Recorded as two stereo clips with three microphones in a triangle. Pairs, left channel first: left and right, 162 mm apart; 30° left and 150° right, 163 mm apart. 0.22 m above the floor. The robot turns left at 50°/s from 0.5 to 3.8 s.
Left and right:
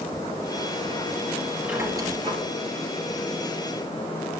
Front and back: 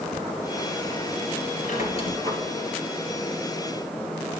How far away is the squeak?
About 2.5 m.